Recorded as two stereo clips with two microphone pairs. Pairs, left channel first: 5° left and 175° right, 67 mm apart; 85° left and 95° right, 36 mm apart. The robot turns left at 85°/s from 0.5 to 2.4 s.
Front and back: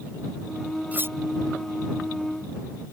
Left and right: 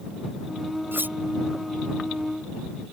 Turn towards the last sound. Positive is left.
turn(degrees=125)